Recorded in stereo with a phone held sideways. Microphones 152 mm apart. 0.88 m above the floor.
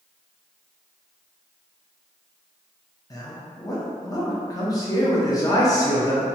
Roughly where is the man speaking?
Left.